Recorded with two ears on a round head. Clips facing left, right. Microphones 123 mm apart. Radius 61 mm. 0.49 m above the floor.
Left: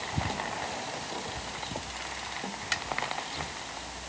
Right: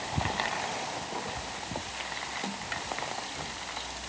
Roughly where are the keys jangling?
No keys jangling in this recording.